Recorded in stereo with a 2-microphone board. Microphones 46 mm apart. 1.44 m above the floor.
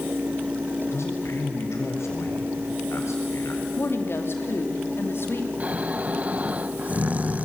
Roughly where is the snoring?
Right.